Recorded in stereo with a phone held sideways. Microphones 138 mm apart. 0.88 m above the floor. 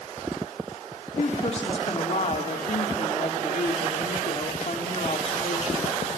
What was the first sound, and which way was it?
A woman speaking, 50° left (ahead or behind).